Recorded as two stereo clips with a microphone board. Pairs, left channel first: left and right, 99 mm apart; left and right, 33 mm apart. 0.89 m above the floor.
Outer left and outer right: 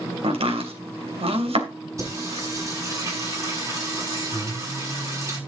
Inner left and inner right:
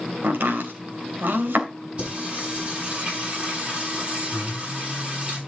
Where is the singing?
30° right (ahead or behind), 8 m.